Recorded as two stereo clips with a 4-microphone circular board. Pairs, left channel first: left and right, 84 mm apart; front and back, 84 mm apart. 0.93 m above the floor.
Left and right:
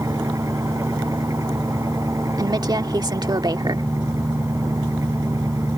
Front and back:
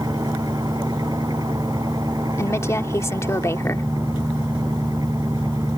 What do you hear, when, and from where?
0.0 s an engine running: 140° right
2.4 s a woman speaking: 55° right